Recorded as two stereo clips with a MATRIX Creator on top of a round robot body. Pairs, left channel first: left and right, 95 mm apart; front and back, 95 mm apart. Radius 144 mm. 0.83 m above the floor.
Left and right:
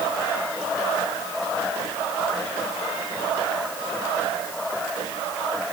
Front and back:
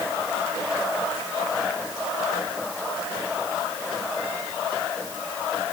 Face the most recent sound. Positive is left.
No sound to turn to.